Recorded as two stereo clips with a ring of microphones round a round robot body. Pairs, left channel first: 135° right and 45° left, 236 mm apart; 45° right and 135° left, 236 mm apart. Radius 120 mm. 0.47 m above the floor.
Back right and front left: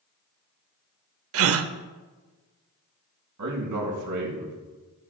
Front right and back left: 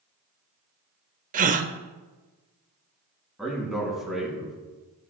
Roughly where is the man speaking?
Ahead left.